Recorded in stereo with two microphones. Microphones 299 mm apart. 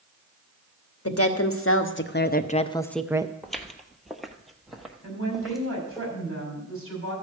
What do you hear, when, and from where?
1.1 s a woman speaking: 50° left (ahead or behind), 1.2 m; by 3.3 s 20° right (ahead or behind), 0.5 m
3.4 s footsteps: centre (ahead or behind), 1.0 m
5.0 s a woman speaking: 45° right (ahead or behind), 6.5 m